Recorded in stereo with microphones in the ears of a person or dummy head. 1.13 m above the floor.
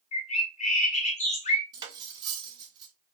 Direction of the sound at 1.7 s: 25° right (ahead or behind).